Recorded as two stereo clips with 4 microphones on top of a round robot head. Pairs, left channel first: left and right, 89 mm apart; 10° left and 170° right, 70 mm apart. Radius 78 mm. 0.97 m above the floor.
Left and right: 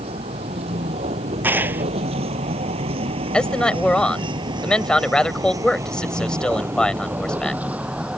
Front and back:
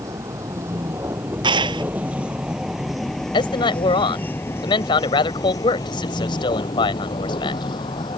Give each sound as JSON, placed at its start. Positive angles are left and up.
{"t": 0.0, "sound": "a vehicle", "azimuth_deg": -115}
{"t": 1.4, "sound": "a clap", "azimuth_deg": -165}
{"t": 3.3, "sound": "a man speaking", "azimuth_deg": 10}